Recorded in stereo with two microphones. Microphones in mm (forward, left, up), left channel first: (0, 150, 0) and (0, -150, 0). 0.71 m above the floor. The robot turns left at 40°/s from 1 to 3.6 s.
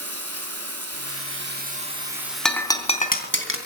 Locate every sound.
0.0 s running water: 125° right, 4.5 m; by 3.7 s 130° left, 4.5 m
2.5 s breaking glass: centre (ahead or behind), 3.5 m; by 3.6 s 45° left (ahead or behind), 3.5 m